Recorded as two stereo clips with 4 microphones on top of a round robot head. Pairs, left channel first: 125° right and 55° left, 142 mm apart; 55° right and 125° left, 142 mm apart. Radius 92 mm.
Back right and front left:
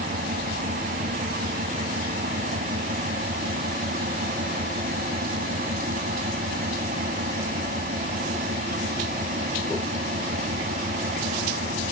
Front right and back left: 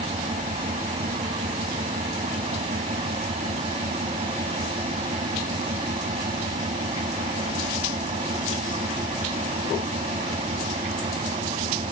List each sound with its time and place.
0.0 s an engine running: 75° left